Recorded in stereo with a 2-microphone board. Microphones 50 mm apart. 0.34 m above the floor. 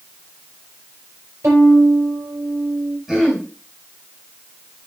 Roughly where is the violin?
Right.